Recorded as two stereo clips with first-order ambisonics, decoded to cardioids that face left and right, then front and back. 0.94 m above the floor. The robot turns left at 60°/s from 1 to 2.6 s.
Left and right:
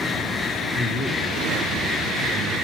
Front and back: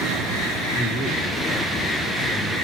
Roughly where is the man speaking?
Ahead.